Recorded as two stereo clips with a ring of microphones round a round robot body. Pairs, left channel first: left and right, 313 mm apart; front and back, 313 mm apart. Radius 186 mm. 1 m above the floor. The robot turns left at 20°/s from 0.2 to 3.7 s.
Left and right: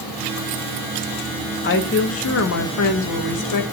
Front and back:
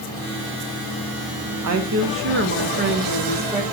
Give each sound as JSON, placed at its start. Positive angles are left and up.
{"t": 1.6, "sound": "a woman speaking", "azimuth_deg": 145, "distance_m": 2.0}